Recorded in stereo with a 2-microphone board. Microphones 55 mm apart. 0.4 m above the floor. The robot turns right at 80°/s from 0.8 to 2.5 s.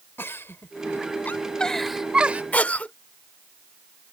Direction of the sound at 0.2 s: 45° left (ahead or behind).